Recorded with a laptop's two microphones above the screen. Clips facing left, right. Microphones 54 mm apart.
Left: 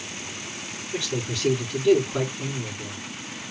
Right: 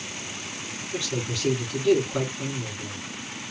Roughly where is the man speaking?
Centre.